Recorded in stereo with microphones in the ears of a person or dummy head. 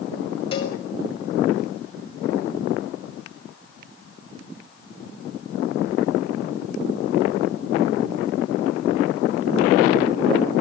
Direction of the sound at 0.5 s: 35° left (ahead or behind).